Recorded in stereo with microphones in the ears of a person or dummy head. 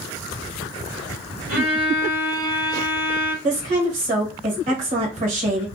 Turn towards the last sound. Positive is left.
turn(degrees=-40)  # may be behind; listen again after turning